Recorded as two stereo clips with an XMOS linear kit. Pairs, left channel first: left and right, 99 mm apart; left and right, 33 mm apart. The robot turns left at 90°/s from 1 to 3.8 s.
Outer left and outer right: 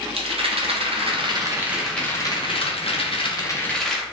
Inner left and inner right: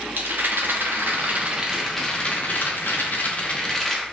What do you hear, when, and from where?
0.2 s a rattle: 100° right, 0.6 m; by 4.0 s 5° left, 0.6 m